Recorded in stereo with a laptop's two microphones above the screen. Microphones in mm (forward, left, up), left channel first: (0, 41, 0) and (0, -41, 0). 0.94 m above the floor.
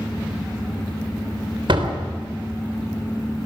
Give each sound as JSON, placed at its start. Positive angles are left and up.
{"t": 1.7, "sound": "a door slam", "side_deg": -75, "distance_m": 3.5}